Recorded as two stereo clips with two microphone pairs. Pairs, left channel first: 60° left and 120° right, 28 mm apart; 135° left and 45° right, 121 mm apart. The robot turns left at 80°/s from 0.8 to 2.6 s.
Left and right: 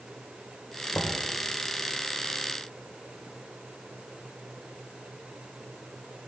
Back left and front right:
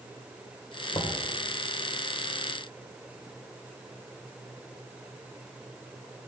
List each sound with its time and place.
0.9 s knocking: 80° left, 2.5 m; by 1.2 s 60° left, 2.5 m